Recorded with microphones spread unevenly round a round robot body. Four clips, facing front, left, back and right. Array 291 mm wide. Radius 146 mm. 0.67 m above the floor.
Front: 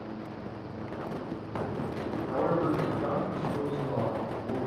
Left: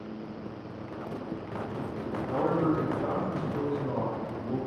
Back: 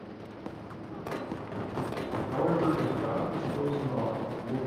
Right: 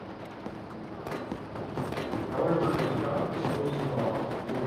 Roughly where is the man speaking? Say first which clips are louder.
Left 1 dB, back 1 dB; ahead left.